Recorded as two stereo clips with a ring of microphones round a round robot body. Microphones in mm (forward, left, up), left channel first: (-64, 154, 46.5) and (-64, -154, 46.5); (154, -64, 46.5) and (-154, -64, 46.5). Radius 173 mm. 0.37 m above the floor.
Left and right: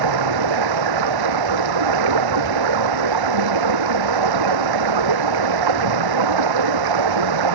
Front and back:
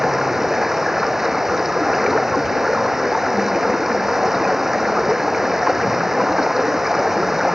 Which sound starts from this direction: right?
Running water, at 0.0 s.